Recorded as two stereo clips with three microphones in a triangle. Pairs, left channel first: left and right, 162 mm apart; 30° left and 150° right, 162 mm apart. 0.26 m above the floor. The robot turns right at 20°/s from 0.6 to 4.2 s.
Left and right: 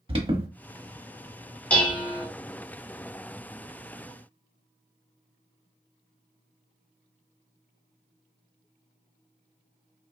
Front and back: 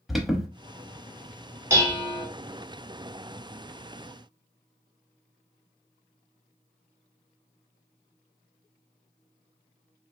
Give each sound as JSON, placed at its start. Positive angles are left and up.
{"t": 0.1, "sound": "an alarm", "azimuth_deg": -60, "distance_m": 0.8}
{"t": 1.7, "sound": "dishes clattering", "azimuth_deg": 160, "distance_m": 0.9}